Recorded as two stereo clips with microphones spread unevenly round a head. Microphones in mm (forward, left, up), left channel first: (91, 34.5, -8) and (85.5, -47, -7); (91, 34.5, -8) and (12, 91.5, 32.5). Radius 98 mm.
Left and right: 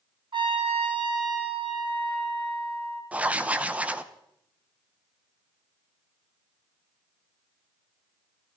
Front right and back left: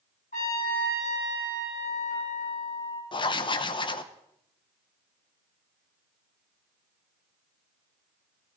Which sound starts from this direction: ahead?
Writing, at 3.1 s.